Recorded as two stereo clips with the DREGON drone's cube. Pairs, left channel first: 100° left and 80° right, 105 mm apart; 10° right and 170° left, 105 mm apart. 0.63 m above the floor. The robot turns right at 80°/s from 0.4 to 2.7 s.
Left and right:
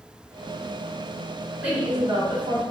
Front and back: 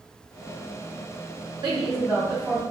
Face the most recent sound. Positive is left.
turn(degrees=-70)